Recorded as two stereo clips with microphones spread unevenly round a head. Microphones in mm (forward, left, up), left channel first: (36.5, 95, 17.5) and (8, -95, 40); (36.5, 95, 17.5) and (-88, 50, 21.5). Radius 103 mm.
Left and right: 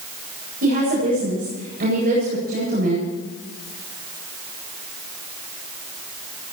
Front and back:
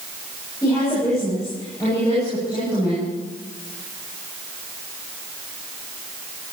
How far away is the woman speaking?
About 9 m.